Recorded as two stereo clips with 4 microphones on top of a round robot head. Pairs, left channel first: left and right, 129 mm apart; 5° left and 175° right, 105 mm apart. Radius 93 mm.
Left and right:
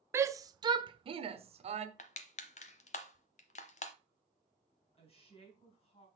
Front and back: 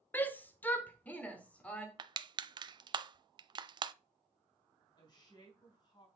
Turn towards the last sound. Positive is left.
turn(degrees=50)